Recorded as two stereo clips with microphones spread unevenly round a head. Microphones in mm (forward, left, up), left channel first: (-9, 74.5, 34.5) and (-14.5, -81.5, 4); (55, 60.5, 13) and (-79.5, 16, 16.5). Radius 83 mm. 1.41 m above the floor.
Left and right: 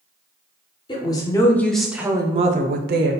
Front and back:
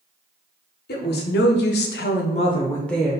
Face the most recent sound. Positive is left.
turn(degrees=-80)